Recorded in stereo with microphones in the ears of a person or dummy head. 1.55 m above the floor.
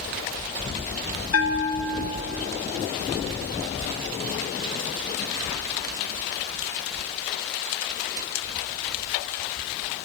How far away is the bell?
About 1.6 m.